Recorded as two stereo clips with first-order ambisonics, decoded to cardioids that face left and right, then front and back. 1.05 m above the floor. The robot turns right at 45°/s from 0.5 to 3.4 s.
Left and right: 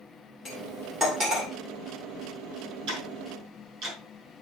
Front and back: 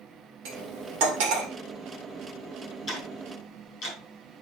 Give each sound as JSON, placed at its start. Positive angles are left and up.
{"t": 0.5, "sound": "cutlery clinking", "azimuth_deg": 170, "distance_m": 2.0}
{"t": 2.9, "sound": "ticking", "azimuth_deg": -60, "distance_m": 3.5}